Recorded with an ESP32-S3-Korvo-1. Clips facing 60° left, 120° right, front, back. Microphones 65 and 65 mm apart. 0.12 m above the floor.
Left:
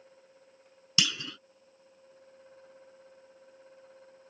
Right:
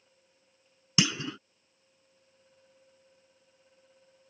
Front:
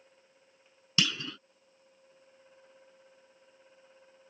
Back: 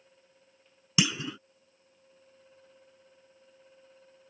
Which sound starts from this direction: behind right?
A clunk, at 1.0 s.